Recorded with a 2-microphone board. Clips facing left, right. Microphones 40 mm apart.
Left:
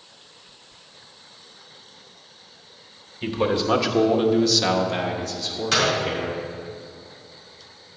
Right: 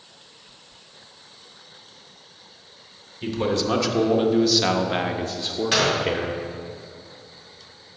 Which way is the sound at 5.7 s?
15° right (ahead or behind).